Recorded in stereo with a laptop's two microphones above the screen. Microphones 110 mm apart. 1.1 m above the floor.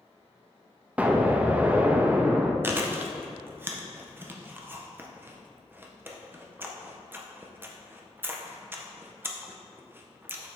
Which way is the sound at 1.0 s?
15° right (ahead or behind).